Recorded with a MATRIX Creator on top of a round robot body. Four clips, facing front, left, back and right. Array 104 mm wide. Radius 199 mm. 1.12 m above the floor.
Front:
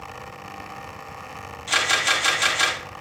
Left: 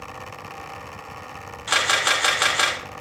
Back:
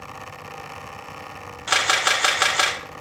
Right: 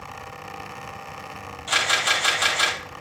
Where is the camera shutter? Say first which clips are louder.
Left 2 dB, back 2 dB; 155° left, 3 m.